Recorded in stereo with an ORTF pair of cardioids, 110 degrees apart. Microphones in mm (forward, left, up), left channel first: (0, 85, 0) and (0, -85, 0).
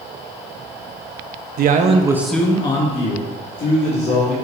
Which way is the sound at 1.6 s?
60° right.